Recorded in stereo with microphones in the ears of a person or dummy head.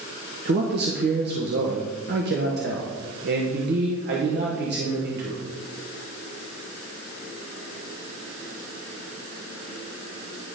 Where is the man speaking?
50° right (ahead or behind), 1.2 m.